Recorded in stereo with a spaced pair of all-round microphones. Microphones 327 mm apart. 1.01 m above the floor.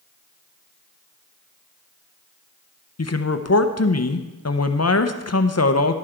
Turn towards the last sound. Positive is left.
turn(degrees=50)  # may be behind; listen again after turning